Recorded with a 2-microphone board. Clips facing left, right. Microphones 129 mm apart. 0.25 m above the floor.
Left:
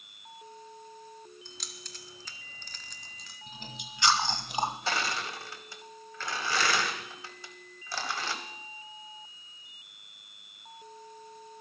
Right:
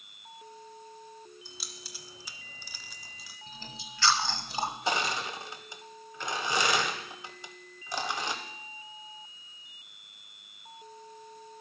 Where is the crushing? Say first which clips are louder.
Right 2 dB; 20° right (ahead or behind), 1.3 m.